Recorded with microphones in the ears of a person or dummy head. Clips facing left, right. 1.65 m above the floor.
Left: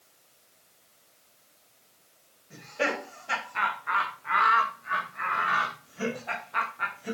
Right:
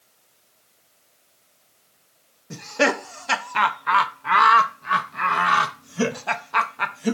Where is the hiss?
I don't hear a hiss.